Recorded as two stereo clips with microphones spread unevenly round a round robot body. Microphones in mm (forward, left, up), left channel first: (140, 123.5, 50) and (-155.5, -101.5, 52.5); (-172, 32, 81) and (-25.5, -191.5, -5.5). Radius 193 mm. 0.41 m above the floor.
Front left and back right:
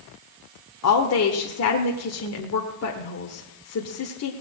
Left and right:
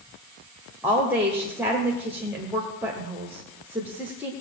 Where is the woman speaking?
5° left, 1.2 m.